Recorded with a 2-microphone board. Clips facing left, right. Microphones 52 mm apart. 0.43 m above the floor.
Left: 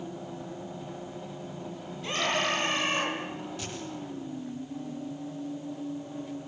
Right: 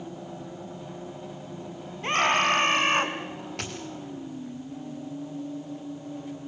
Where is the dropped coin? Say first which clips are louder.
Right 2 dB; 65° right (ahead or behind), 3 m.